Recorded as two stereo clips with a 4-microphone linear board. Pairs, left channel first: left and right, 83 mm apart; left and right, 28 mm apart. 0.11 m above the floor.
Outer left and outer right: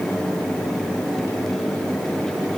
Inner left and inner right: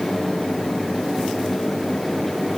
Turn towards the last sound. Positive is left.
No sound to turn to.